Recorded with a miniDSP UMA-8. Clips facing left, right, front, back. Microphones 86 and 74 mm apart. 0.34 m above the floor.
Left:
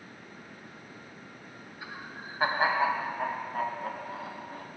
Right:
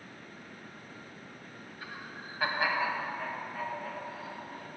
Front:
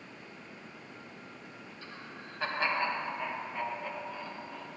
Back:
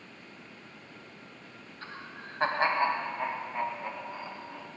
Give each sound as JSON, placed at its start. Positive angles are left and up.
{"t": 1.8, "sound": "laughter", "azimuth_deg": 165, "distance_m": 2.0}